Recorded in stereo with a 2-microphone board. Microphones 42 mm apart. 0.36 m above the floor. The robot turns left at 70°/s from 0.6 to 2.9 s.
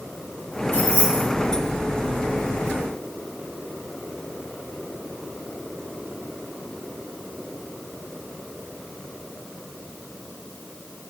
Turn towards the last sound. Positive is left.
turn(degrees=-110)